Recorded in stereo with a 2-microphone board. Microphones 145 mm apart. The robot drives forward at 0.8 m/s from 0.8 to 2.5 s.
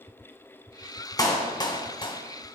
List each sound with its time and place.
1.2 s a clap: 25° left (ahead or behind), 1.3 m; by 2.2 s 35° left (ahead or behind), 1.0 m